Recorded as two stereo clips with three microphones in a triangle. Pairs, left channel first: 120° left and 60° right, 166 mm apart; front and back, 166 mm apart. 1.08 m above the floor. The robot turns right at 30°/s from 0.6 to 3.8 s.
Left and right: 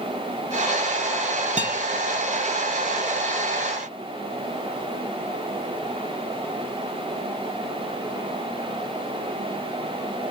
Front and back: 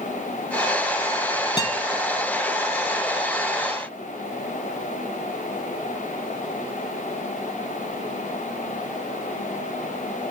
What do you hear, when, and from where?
1.6 s a guitar: 45° right, 1.3 m; by 1.8 s 35° right, 1.3 m